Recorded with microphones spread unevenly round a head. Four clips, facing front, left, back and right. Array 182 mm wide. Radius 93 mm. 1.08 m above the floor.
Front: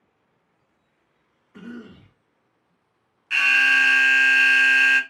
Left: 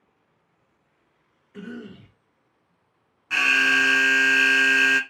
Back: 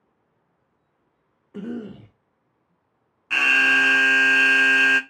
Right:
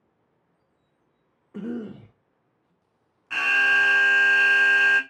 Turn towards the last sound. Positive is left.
turn(degrees=130)